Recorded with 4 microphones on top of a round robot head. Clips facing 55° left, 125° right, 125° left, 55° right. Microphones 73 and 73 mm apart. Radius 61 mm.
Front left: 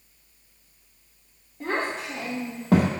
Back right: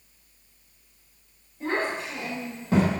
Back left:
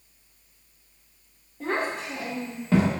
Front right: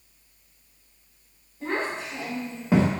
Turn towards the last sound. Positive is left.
turn(degrees=-5)